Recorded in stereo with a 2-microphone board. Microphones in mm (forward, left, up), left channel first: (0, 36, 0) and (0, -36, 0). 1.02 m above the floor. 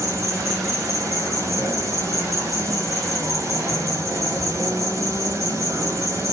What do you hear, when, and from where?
0.0 s an insect: 45° right (ahead or behind), 3 m